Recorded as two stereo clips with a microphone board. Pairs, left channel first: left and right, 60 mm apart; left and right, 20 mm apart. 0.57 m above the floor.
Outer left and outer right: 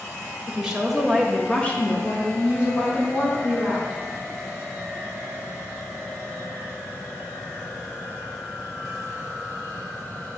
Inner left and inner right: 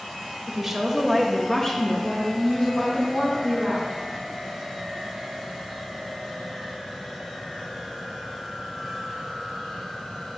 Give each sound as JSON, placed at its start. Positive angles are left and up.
{"t": 0.5, "sound": "a woman speaking", "side_deg": -15, "distance_m": 1.1}